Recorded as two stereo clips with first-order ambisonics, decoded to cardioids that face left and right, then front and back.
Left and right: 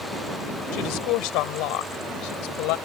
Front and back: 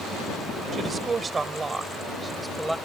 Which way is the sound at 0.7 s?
115° left.